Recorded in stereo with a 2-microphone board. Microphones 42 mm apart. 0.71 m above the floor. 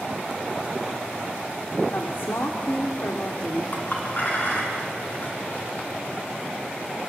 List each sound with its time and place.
1.9 s a woman speaking: 70° left (ahead or behind), 1.8 m
3.7 s a clink: 45° left (ahead or behind), 4.5 m